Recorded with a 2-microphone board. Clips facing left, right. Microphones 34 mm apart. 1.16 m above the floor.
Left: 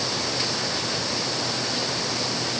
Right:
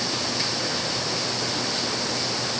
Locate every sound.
Only background noise.